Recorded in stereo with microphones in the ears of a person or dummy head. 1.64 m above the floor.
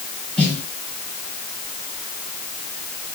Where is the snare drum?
5° left (ahead or behind), 3 m.